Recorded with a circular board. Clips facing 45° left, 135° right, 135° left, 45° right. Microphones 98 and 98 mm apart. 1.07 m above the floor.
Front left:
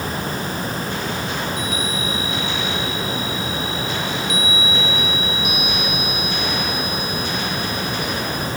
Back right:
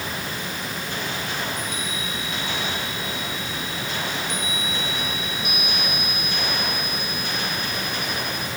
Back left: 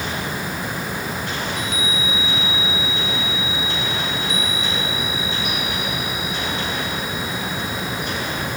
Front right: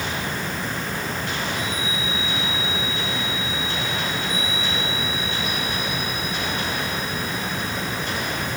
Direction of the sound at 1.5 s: 125° left.